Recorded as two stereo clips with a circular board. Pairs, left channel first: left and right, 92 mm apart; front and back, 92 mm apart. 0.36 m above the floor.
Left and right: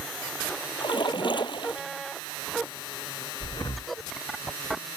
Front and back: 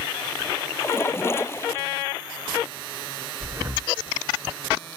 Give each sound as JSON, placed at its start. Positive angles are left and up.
{"t": 0.8, "sound": "a splash", "azimuth_deg": 60}
{"t": 3.4, "sound": "breathing", "azimuth_deg": 120}